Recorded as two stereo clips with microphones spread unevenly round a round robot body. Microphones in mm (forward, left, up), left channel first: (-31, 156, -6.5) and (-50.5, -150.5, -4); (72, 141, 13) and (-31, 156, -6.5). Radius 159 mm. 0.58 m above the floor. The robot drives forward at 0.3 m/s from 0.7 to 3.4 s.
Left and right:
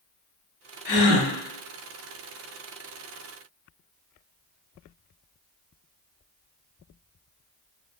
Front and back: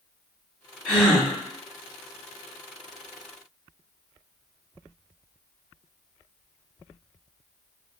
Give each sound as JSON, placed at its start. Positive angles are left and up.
{"t": 0.8, "sound": "a gasp", "azimuth_deg": 70, "distance_m": 1.5}